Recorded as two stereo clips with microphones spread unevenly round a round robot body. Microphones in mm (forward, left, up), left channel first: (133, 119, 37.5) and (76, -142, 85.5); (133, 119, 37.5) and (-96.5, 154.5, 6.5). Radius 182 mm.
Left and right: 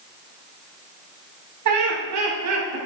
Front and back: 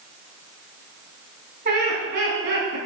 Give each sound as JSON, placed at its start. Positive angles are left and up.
{"t": 1.6, "sound": "laughter", "azimuth_deg": -130, "distance_m": 3.5}